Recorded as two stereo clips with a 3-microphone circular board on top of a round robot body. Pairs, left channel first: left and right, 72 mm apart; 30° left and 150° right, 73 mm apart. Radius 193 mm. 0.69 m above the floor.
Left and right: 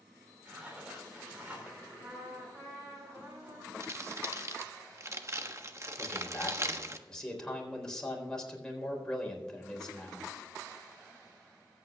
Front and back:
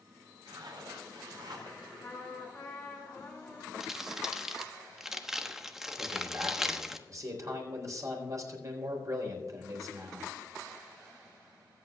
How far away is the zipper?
About 4.5 m.